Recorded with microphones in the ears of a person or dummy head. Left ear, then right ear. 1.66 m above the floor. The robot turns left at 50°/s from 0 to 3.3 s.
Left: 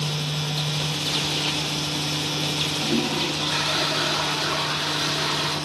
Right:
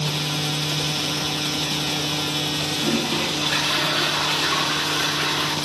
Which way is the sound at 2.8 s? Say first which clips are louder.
Right 1 dB; 35° right (ahead or behind).